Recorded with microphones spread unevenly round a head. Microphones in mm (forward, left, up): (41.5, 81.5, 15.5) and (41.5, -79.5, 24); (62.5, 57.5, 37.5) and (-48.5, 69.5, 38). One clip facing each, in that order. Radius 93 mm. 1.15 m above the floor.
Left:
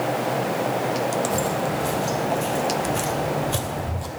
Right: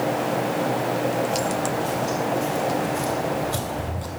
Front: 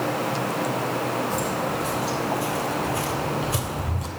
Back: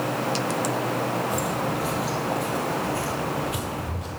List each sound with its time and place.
1.3 s footsteps: 105° left, 1.7 m; by 4.1 s 10° left, 1.5 m